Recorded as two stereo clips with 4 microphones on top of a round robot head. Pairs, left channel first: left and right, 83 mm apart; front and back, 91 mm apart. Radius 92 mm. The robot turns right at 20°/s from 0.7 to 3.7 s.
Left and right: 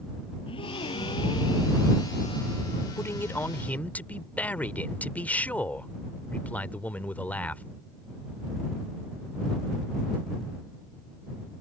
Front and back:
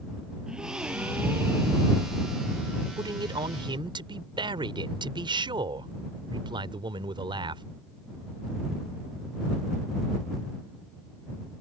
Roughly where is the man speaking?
Behind left.